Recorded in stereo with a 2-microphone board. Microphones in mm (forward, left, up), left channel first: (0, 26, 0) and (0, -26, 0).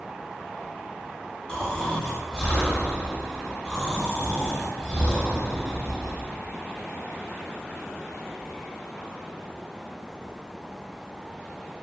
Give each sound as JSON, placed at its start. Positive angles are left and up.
{"t": 1.5, "sound": "snoring", "side_deg": 20, "distance_m": 1.5}